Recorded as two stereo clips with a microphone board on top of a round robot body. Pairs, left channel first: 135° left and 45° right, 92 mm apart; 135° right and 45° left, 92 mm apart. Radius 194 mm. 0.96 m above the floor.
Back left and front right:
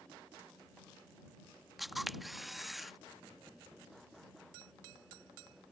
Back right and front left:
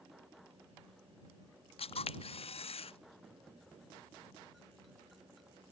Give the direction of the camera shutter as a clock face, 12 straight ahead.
4 o'clock.